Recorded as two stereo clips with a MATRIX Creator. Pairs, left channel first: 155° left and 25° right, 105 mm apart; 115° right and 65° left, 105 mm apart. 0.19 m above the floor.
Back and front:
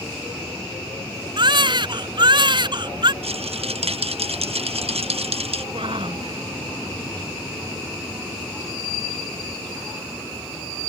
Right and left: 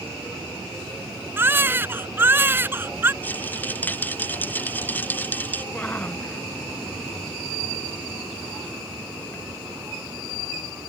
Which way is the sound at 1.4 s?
5° left.